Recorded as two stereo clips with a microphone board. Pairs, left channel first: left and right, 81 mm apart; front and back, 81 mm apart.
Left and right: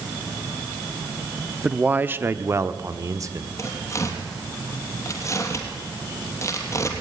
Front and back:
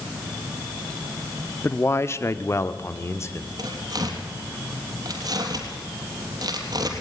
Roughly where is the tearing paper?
Behind left.